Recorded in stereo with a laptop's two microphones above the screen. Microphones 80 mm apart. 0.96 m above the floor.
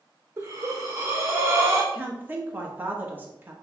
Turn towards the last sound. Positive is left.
turn(degrees=-20)  # may be behind; listen again after turning